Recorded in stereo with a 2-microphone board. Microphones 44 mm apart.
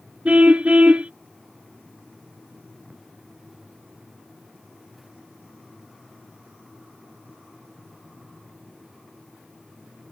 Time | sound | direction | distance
0.2 | a car horn | 30° right (ahead or behind) | ?